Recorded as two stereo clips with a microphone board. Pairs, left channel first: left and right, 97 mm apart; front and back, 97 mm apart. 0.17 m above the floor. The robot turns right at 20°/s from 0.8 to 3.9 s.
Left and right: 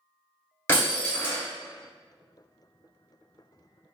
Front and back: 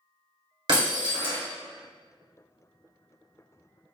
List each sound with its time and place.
0.7 s breaking glass: 150° left, 1.9 m; by 1.4 s 165° left, 1.9 m